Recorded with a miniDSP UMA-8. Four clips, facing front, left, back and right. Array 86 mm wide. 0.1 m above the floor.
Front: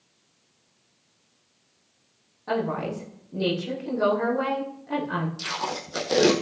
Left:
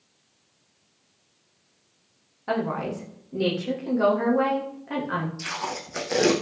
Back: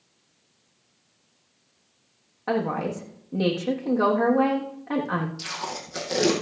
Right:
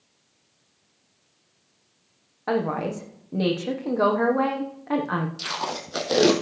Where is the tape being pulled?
65° right, 2.5 m.